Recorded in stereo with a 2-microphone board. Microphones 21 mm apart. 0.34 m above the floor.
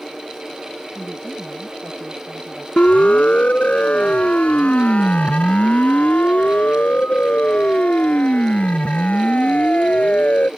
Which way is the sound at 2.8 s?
65° left (ahead or behind).